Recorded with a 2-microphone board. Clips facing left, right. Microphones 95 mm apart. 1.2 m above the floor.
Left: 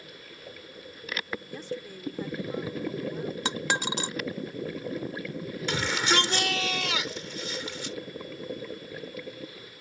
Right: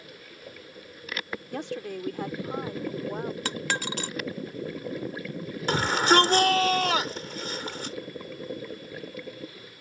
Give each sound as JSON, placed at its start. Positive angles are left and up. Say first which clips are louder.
{"t": 1.5, "sound": "a woman speaking", "louder": "right 4 dB", "side_deg": -80}
{"t": 3.5, "sound": "a dropped coin", "louder": "left 1 dB", "side_deg": 20}
{"t": 5.7, "sound": "a shout", "louder": "right 6 dB", "side_deg": -45}